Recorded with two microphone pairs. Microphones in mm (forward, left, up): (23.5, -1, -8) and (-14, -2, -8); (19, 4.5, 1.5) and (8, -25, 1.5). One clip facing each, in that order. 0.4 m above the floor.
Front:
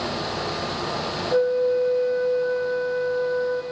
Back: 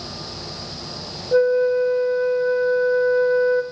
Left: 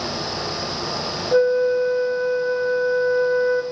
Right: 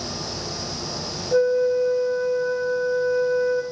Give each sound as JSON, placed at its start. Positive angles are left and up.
{"t": 1.3, "sound": "a flute", "azimuth_deg": 135, "distance_m": 0.6}